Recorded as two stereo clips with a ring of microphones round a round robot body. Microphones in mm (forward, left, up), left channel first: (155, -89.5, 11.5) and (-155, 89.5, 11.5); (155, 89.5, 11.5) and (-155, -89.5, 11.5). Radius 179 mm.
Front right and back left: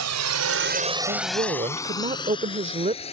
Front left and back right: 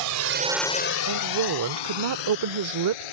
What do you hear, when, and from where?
0.0 s a drone: 170° right; by 3.1 s 45° left
1.1 s a woman speaking: 145° right